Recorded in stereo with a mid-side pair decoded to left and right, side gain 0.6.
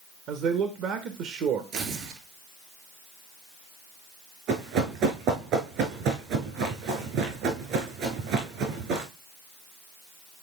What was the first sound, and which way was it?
A man speaking, 60° right.